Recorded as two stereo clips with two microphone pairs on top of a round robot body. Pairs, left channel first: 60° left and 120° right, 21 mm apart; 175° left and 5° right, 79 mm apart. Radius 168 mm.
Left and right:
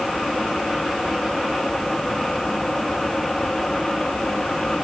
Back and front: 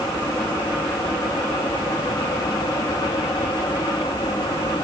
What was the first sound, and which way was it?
Only background noise.